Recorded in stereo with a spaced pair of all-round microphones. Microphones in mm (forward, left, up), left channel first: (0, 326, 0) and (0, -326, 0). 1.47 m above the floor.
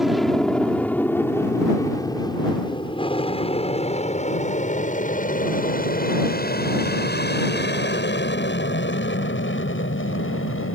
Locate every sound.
0.0 s an aircraft: centre (ahead or behind); by 10.8 s 20° left (ahead or behind)